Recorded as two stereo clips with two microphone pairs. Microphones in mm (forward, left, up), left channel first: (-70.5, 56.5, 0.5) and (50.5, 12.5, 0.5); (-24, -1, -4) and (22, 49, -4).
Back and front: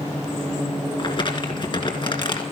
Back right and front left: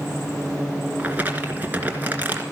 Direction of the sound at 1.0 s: 110° left.